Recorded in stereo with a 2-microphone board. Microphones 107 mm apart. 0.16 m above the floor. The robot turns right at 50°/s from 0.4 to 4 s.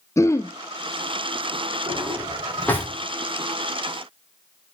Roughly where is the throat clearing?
Left.